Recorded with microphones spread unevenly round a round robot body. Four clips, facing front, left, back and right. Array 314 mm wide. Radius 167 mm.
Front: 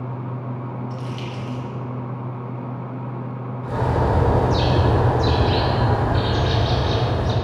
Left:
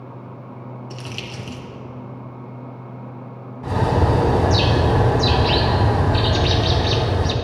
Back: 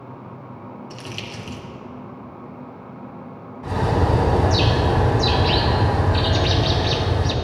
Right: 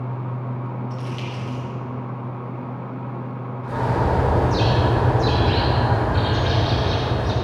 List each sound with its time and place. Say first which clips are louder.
0.9 s crumpling: right 3 dB, front 4 dB; 130° left, 3.5 m
3.6 s a bird: left 3 dB, back 1 dB; 115° left, 3 m